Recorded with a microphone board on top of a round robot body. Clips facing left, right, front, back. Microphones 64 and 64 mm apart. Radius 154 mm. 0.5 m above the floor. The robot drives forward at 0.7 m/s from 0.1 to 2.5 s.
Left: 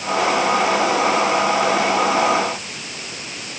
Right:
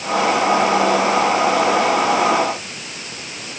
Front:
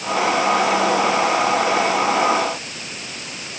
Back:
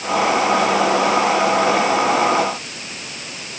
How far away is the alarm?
I don't hear an alarm.